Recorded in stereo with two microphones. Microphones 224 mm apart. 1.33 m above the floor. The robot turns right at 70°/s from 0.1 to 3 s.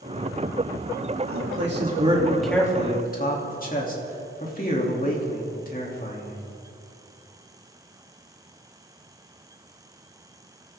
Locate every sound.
1.3 s a man speaking: 80° right, 3 m; by 6.4 s 40° left, 3 m